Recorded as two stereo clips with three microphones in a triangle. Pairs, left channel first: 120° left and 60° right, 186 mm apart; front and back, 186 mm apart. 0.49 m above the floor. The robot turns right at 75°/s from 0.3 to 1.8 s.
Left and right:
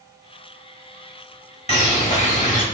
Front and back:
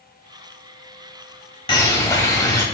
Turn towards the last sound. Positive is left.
turn(degrees=75)